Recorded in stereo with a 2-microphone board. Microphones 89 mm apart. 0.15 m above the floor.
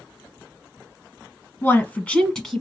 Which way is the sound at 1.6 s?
25° left (ahead or behind).